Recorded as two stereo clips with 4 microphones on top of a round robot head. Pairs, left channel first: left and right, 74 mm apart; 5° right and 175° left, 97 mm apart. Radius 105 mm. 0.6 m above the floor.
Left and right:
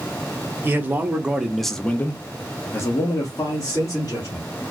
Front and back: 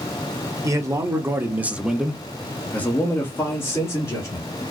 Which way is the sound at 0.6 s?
140° right.